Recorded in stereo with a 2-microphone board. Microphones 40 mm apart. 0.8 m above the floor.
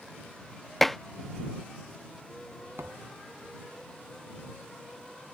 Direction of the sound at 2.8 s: 75° right (ahead or behind).